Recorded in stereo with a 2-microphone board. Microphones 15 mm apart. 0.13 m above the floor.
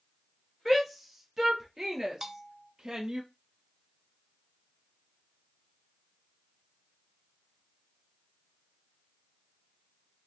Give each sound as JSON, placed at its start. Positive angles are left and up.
{"t": 0.7, "sound": "a shout", "side_deg": -5, "distance_m": 2.5}
{"t": 2.2, "sound": "a bell", "side_deg": -20, "distance_m": 0.6}